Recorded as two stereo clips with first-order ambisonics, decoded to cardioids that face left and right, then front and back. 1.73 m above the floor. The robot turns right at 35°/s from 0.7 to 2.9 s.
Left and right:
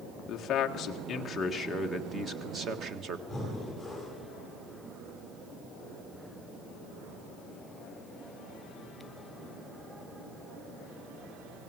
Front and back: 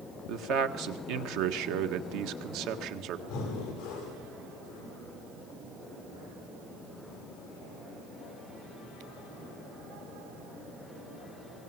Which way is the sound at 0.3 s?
140° left.